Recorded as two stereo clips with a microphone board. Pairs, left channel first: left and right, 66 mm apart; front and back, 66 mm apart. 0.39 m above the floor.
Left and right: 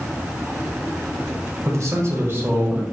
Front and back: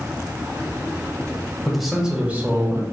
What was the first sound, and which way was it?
A man speaking, 85° right.